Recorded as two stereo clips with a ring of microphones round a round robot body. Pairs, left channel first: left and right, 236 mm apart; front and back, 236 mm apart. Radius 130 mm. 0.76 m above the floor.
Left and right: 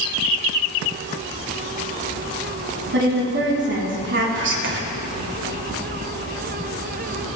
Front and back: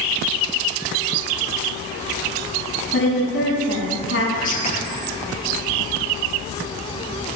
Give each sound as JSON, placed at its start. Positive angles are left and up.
{"t": 2.9, "sound": "a woman speaking", "azimuth_deg": -50, "distance_m": 5.5}
{"t": 4.3, "sound": "whispering", "azimuth_deg": -55, "distance_m": 2.5}